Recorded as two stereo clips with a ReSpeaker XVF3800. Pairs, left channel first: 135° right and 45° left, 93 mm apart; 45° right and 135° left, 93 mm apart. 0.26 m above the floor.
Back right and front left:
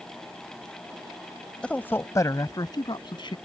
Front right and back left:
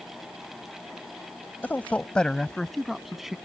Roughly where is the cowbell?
No cowbell in this recording.